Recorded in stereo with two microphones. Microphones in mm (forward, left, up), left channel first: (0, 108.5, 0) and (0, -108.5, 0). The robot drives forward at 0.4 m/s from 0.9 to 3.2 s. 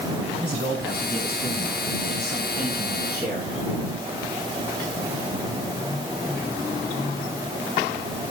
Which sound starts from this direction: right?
A man speaking, at 0.4 s.